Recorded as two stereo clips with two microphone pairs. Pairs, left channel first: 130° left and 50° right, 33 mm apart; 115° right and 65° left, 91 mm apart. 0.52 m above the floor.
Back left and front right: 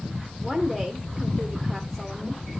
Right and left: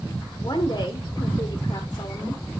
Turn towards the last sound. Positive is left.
turn(degrees=-140)